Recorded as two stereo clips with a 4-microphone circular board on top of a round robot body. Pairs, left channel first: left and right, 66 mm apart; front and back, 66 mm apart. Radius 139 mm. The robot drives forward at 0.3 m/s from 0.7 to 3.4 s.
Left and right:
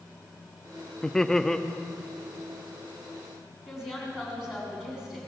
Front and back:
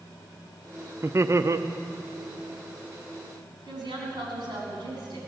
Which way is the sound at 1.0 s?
170° left.